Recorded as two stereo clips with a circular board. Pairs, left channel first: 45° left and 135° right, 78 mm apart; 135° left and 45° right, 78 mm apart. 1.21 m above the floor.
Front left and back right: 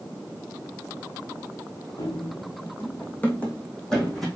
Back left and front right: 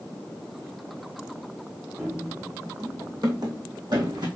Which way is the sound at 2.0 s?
10° left.